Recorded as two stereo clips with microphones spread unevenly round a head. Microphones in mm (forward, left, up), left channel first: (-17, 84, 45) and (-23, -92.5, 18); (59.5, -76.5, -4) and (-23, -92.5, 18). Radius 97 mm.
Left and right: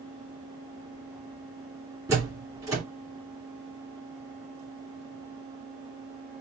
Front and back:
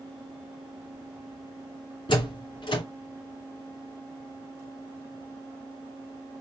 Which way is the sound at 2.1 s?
15° right.